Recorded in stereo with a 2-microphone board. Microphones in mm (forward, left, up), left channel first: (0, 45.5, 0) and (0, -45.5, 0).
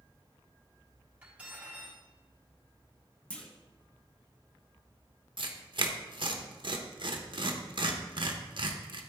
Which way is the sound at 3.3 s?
10° left (ahead or behind).